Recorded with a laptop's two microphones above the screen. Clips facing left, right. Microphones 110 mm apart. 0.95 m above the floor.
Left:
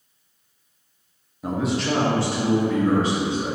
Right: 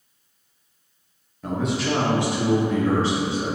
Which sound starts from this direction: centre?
A man speaking, at 1.4 s.